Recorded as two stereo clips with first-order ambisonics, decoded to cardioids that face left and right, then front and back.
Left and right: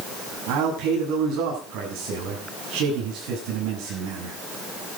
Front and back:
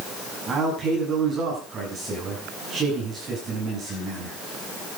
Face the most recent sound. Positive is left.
turn(degrees=-115)